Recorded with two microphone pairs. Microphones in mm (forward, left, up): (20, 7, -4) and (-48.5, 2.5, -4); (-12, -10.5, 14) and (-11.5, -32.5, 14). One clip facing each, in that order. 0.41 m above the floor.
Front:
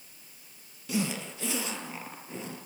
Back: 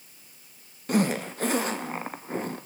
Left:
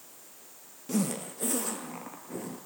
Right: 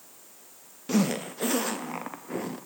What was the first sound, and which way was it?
A zipper, 140° right.